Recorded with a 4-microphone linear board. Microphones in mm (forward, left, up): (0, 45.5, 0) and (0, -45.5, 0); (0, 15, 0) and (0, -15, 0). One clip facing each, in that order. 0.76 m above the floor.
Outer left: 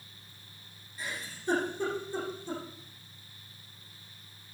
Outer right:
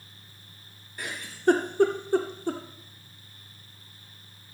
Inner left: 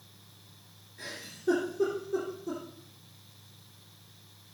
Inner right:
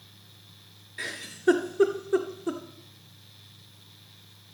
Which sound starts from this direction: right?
A giggle, at 1.0 s.